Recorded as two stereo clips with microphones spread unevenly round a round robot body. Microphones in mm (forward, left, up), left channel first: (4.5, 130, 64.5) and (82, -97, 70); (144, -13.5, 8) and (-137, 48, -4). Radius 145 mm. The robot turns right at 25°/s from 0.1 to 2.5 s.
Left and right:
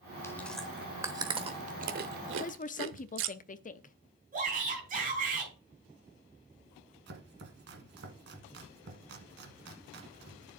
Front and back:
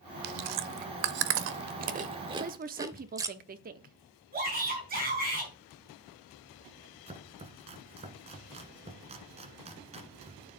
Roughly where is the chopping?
Behind right.